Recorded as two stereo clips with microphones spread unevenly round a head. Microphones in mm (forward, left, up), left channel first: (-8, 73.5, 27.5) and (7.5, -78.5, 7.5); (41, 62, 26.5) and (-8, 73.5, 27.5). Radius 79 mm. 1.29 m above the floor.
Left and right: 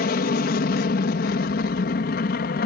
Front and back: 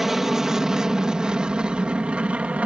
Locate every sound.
0.0 s an aircraft: 85° left; by 2.6 s 105° left